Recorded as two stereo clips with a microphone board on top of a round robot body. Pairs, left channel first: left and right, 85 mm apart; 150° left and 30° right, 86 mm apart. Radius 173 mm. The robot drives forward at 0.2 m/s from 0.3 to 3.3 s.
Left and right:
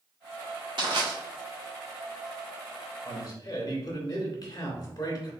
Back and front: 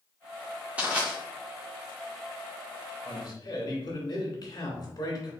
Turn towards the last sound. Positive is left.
turn(degrees=130)